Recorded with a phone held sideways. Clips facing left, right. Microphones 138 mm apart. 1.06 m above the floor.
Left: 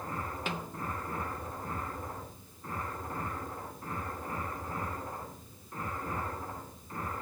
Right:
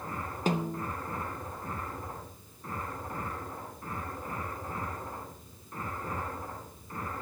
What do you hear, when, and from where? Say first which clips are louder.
0.5 s a snare drum: right 7 dB; 40° right (ahead or behind), 0.8 m